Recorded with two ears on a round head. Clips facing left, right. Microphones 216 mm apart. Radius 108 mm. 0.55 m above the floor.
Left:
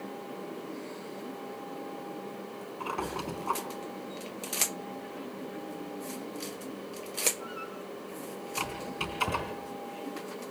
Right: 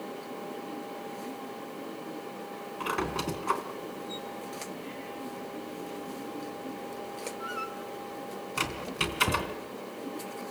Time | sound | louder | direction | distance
2.8 | a squeak | right 4 dB | 25° right (ahead or behind) | 3.5 m